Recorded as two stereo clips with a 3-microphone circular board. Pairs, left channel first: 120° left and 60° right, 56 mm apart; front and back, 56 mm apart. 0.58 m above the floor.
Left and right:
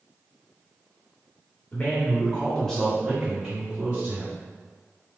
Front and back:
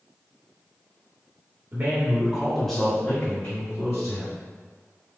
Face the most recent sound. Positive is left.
turn(degrees=5)